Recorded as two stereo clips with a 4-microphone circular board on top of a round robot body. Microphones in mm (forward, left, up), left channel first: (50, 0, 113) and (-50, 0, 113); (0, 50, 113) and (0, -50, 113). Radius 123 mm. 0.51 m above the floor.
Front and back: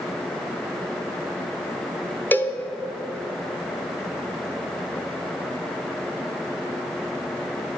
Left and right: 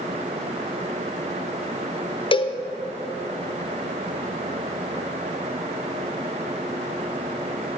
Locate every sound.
2.3 s a cowbell: 70° left, 1.0 m